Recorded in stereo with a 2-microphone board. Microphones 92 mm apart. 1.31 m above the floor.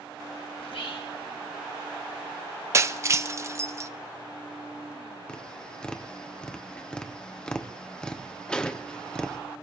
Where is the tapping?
10° left (ahead or behind), 1.0 m.